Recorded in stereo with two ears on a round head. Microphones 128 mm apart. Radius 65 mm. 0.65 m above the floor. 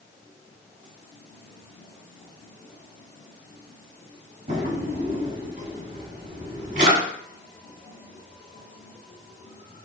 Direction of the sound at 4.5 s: 50° right (ahead or behind).